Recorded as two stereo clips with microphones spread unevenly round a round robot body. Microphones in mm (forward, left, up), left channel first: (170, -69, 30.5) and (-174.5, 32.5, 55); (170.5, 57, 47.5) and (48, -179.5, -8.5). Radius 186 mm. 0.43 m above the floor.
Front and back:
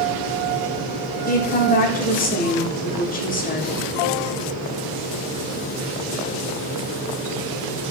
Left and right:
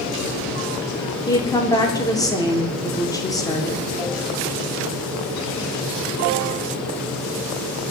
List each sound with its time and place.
1.3 s a woman speaking: 25° right, 1.1 m